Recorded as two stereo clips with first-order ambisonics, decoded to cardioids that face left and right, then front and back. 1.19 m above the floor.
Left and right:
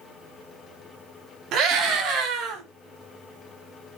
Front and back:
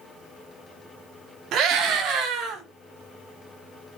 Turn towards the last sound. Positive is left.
turn(degrees=-130)